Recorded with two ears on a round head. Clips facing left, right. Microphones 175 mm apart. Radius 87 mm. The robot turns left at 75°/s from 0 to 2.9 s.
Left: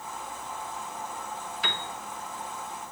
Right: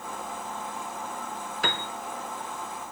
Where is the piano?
40° right (ahead or behind), 0.8 m; by 1.9 s 55° right (ahead or behind), 0.8 m.